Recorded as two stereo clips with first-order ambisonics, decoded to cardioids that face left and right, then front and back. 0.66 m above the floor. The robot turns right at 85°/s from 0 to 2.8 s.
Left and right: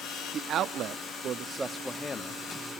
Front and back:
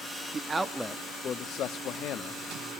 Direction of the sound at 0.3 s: 130° right.